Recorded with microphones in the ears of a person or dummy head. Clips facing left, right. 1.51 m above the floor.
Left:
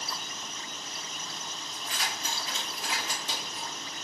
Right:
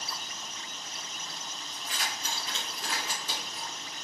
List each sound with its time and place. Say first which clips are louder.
1.7 s keys jangling: left 1 dB; 10° right (ahead or behind), 1.3 m; by 3.7 s 35° left (ahead or behind), 1.8 m